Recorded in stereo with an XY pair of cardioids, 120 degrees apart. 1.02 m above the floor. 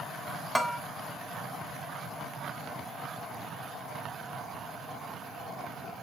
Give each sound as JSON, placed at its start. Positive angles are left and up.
{"t": 0.6, "sound": "a bell", "azimuth_deg": 0, "distance_m": 1.1}